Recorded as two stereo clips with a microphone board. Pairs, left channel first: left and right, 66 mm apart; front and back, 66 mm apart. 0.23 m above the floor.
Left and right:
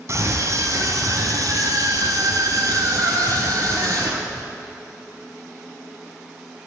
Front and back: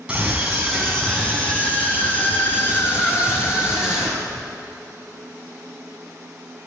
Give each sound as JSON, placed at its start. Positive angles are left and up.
{"t": 0.1, "sound": "a scream", "azimuth_deg": -110, "distance_m": 1.9}